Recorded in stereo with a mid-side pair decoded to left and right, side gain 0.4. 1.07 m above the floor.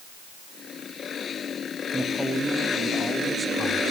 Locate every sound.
1.9 s a man speaking: 10° right, 2 m; by 3.8 s 15° right, 3 m